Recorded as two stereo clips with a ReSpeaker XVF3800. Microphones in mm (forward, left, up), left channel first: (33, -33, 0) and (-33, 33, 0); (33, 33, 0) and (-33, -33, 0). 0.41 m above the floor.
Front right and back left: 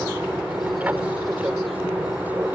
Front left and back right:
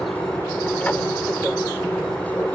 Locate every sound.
0.0 s an aircraft: 90° left